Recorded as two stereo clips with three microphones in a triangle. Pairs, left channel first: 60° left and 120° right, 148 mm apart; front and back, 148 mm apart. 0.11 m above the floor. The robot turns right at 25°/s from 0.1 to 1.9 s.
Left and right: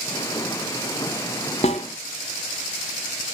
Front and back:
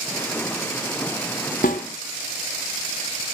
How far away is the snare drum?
About 1.2 m.